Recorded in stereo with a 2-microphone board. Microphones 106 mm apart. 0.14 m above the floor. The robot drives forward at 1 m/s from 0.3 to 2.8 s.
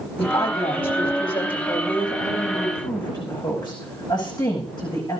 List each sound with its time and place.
0.2 s a woman speaking: 55° left (ahead or behind), 6.5 m; by 5.2 s 40° left (ahead or behind), 8 m